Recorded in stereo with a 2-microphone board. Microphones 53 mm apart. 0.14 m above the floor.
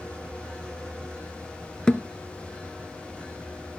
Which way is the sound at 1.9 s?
15° left (ahead or behind).